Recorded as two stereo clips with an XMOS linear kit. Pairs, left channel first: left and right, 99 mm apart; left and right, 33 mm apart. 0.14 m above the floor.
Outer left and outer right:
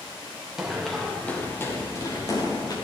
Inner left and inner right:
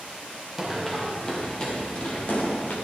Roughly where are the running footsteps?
Centre.